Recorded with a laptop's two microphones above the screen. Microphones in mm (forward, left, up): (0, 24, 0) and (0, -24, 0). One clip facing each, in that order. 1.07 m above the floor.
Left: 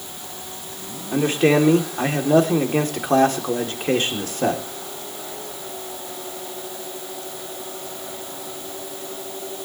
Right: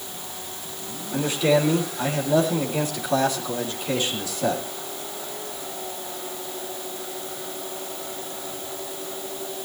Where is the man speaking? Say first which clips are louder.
Left 3 dB; 50° left (ahead or behind), 3 m.